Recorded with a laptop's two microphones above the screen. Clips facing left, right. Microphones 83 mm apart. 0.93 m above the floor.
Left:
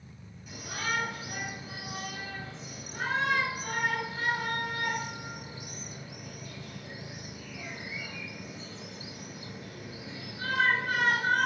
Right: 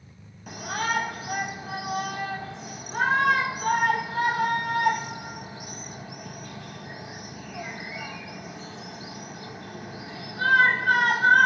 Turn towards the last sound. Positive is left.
turn(degrees=-60)  # may be behind; listen again after turning